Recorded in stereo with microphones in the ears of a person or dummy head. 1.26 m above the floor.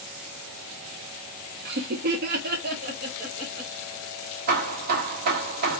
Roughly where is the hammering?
Right.